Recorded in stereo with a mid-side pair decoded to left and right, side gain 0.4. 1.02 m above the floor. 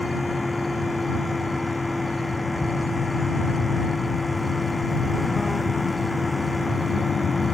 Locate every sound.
0.0 s a fan: 15° left